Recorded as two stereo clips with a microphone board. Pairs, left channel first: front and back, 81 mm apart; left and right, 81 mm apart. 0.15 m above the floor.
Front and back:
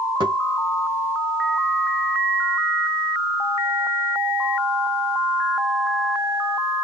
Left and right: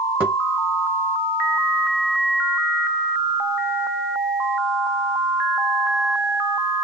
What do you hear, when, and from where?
0.2 s a thud: 160° right, 3 m